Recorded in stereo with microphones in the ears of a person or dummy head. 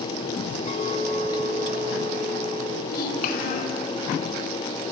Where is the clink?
35° left (ahead or behind), 2.5 m.